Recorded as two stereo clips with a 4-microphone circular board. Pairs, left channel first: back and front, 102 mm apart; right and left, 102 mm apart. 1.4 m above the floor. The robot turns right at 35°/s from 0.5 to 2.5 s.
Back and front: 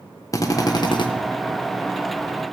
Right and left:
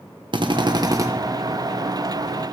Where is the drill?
125° left, 1.1 m; by 1.1 s 145° left, 1.1 m.